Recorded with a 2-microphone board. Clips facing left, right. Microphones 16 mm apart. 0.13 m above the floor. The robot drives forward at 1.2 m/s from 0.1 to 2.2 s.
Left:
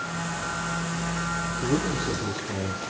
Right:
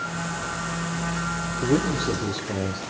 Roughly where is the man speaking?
Right.